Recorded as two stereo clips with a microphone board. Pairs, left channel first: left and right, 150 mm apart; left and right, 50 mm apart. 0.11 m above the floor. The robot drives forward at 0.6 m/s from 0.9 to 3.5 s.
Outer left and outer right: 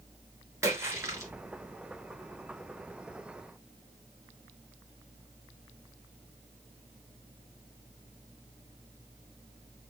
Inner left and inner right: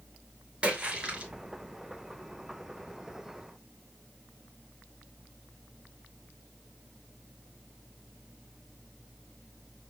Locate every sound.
0.6 s a splash: 20° right (ahead or behind), 1.3 m